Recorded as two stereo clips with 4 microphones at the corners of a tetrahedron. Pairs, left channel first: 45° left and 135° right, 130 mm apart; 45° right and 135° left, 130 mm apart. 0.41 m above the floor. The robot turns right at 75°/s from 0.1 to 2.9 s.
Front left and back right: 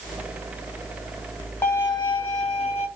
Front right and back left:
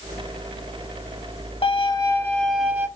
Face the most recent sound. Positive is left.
turn(degrees=70)